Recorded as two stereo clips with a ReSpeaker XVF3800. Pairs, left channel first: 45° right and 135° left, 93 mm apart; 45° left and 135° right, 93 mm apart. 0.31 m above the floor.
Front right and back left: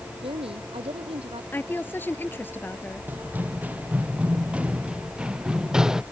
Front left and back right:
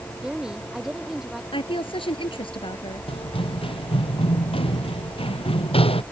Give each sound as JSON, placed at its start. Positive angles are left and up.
{"t": 0.2, "sound": "a woman speaking", "azimuth_deg": 140}
{"t": 1.5, "sound": "a woman speaking", "azimuth_deg": 25}
{"t": 3.1, "sound": "running footsteps", "azimuth_deg": 65}